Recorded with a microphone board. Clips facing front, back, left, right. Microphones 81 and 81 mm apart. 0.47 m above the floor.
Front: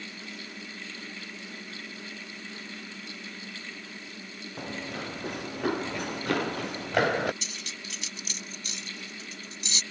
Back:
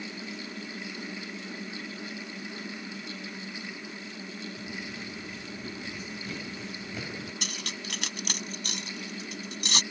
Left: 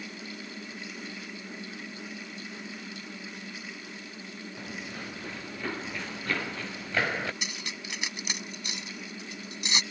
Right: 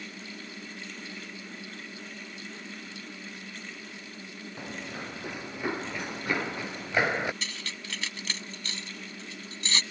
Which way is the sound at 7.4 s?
165° left.